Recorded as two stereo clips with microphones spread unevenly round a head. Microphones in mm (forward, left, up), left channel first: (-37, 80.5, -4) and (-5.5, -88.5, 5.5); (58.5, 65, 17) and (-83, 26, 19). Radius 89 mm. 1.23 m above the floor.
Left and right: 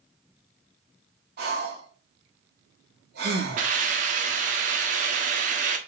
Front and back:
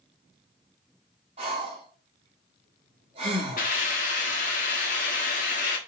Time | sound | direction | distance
1.4 | breathing | 105° right | 2.5 m
3.6 | a hiss | 35° right | 1.4 m